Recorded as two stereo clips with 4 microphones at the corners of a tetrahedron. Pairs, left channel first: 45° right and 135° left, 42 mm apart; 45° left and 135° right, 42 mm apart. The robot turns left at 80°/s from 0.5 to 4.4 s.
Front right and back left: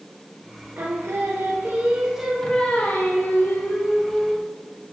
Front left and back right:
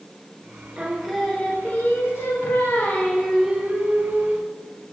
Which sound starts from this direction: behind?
Singing, at 0.8 s.